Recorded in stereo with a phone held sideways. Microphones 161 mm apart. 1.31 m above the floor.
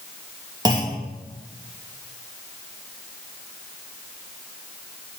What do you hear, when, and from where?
0.7 s a clunk: 25° right (ahead or behind), 1.0 m